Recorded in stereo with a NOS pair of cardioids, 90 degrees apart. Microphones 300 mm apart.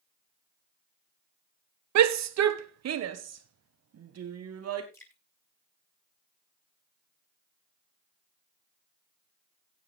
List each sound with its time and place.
1.9 s a shout: 65° right, 1.1 m; by 4.8 s 55° right, 3.5 m
4.9 s dripping: 10° left, 5.5 m